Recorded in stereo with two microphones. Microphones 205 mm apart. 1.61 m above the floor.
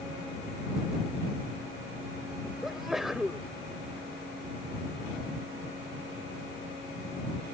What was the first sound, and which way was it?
A sneeze, centre (ahead or behind).